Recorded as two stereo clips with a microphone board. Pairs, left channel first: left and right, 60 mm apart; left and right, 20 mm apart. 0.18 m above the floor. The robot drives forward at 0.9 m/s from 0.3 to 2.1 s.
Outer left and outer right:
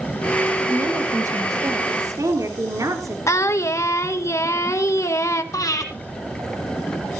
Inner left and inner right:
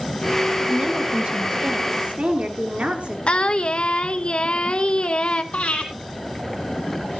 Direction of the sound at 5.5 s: 75° left (ahead or behind).